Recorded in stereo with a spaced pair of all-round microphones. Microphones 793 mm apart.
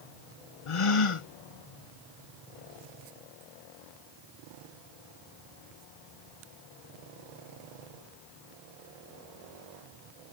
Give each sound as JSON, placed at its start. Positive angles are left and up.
{"t": 0.7, "sound": "a gasp", "side_deg": 40}